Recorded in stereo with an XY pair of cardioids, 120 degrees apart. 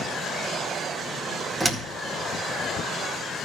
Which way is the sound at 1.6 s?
5° right.